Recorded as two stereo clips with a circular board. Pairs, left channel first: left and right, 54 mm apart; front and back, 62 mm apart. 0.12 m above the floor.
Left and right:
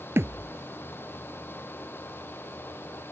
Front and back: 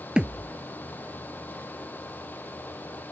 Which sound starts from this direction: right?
A thud, at 0.2 s.